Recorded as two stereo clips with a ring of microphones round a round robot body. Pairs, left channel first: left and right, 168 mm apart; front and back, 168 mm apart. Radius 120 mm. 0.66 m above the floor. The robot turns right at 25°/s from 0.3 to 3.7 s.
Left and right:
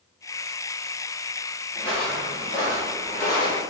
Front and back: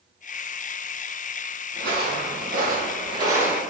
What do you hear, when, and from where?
1.7 s footsteps: 175° left, 1.6 m; by 3.6 s 100° left, 0.7 m